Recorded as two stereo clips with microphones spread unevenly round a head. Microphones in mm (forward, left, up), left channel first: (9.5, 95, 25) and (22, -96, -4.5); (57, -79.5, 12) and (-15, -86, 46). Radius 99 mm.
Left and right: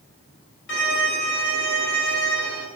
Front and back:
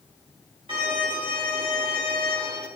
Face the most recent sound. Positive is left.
turn(degrees=130)